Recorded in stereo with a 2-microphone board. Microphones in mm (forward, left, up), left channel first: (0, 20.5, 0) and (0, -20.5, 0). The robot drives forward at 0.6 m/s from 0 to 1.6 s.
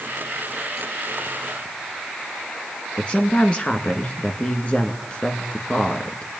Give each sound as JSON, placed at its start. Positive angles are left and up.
{"t": 3.0, "sound": "a woman speaking", "side_deg": 40, "distance_m": 1.9}